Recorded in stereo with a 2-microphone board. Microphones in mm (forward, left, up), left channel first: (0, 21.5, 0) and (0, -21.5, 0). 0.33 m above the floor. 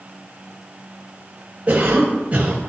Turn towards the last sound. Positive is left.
turn(degrees=-40)  # may be behind; listen again after turning